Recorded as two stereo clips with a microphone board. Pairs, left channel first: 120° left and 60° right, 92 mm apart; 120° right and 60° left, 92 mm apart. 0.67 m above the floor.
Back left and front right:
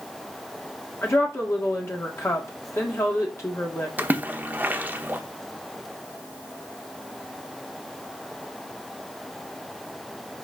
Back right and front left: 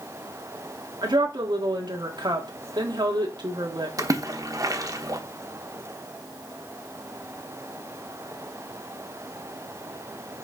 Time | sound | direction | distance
1.0 | a woman speaking | 70° left | 1.6 m
4.0 | a splash | 10° left | 1.0 m